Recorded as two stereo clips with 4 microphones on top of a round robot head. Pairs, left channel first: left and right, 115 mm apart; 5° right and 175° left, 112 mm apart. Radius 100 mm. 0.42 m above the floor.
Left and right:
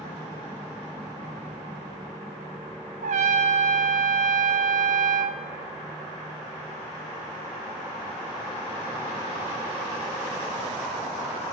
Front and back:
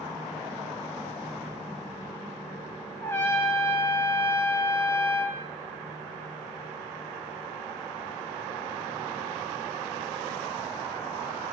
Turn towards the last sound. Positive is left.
turn(degrees=-75)